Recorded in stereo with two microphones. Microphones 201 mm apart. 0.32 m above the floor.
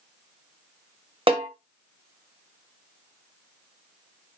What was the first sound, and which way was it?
A snare drum, 30° right (ahead or behind).